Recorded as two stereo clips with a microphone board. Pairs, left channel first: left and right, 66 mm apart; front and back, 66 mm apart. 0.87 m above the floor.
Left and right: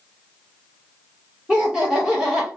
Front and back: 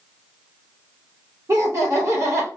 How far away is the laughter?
About 1.3 m.